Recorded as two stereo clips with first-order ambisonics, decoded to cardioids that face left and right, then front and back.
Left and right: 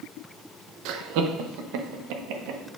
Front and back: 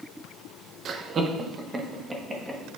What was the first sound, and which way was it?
Laughter, 120° right.